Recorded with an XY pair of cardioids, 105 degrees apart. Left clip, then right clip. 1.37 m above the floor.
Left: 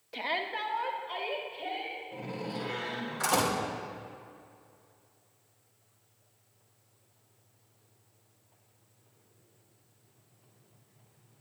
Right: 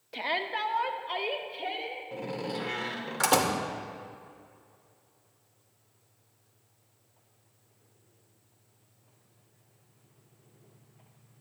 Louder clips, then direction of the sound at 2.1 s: Right 3 dB; 70° right.